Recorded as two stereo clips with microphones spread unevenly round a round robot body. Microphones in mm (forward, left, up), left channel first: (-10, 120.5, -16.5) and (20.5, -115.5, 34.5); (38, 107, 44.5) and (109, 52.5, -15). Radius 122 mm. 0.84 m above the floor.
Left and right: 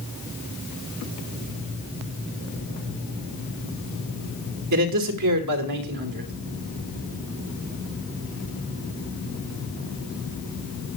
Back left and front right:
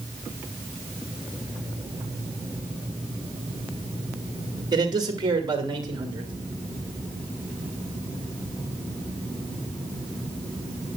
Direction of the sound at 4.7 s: 65° right.